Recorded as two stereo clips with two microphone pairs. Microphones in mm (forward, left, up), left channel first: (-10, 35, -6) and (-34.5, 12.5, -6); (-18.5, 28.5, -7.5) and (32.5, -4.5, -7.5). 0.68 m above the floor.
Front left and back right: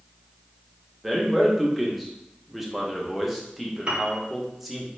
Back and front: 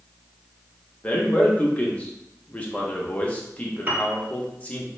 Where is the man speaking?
145° left, 0.8 m.